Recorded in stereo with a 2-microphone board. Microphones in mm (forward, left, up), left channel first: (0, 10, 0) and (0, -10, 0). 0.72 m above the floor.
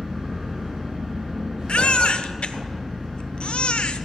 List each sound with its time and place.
0.0 s an engine running: 50° right (ahead or behind), 6.5 m
1.7 s a baby crying: 65° left (ahead or behind), 0.5 m